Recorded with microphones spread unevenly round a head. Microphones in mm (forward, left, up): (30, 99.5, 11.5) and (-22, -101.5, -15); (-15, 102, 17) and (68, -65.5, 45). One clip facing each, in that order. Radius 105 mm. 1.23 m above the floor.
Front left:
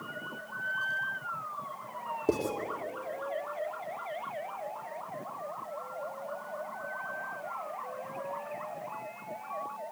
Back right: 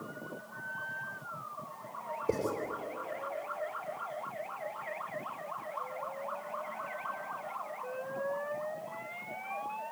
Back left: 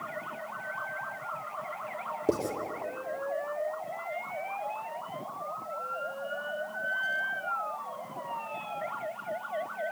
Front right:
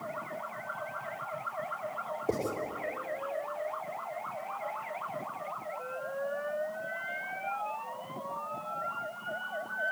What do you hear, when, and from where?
2.3 s writing: 75° left, 2.5 m